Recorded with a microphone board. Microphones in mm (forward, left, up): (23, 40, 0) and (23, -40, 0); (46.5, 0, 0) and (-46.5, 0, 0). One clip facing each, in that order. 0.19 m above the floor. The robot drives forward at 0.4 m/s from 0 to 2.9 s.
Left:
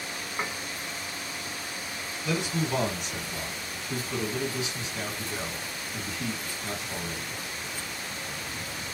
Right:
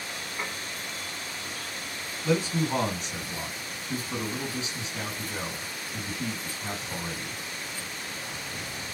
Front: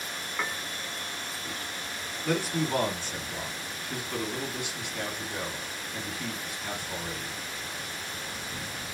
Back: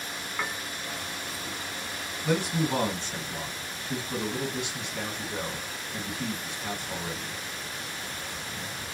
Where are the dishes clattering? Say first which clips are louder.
Left 3 dB, even; 100° left, 0.9 m; by 0.6 s 105° left, 0.9 m.